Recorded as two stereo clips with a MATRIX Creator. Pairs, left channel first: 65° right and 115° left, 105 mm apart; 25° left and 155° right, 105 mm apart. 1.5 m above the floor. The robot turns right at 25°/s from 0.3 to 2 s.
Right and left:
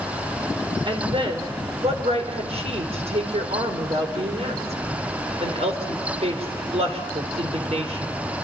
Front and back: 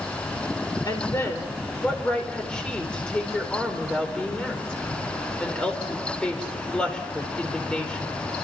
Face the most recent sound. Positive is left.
turn(degrees=105)